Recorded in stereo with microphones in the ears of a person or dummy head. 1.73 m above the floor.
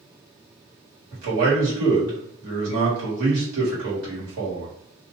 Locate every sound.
1.1 s a man speaking: 75° right (ahead or behind), 1.6 m